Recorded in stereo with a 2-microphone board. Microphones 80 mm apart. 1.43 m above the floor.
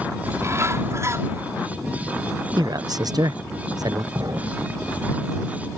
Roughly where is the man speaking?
Right.